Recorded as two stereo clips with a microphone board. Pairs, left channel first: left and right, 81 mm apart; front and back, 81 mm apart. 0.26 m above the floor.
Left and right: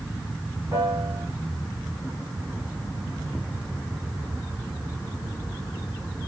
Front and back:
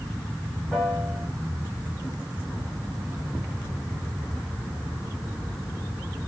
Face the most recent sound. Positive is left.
turn(degrees=-90)